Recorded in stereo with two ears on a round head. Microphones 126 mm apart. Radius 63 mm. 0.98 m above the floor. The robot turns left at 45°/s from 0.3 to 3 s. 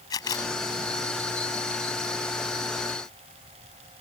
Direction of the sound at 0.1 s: 25° left (ahead or behind).